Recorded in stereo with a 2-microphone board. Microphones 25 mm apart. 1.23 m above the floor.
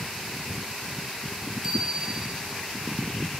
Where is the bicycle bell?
20° right (ahead or behind), 6 m.